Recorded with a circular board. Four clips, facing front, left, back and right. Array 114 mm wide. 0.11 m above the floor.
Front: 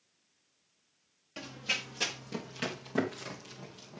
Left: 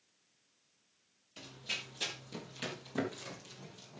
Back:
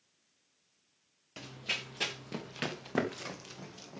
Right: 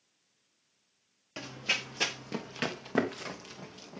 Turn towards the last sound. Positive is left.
turn(degrees=-125)